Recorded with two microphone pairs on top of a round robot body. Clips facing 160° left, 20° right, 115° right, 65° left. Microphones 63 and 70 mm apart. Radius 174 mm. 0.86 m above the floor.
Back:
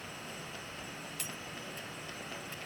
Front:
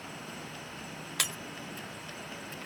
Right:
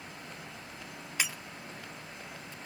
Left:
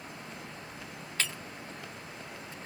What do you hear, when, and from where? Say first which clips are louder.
1.2 s breaking glass: front 12 dB, even; 40° right